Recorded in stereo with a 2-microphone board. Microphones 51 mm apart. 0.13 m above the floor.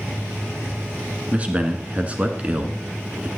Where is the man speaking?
25° right (ahead or behind), 1.1 m.